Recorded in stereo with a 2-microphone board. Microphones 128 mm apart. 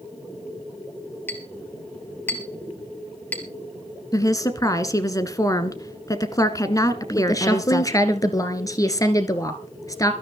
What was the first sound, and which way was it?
A clink, 15° left (ahead or behind).